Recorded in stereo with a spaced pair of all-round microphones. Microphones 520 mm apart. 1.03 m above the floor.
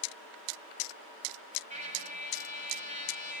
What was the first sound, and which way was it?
A trumpet, 15° right (ahead or behind).